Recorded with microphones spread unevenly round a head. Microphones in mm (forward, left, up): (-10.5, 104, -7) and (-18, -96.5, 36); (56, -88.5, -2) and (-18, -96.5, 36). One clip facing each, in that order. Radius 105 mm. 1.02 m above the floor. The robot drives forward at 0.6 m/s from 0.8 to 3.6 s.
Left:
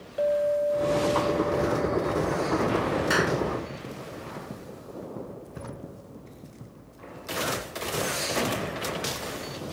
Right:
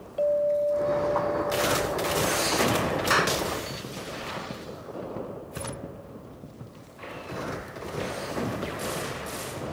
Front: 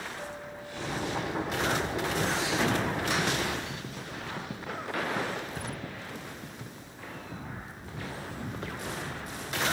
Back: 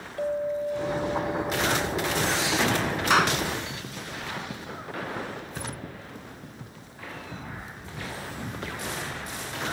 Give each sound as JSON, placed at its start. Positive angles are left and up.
{"t": 0.2, "sound": "a clink", "azimuth_deg": 155}
{"t": 3.1, "sound": "a clap", "azimuth_deg": 180}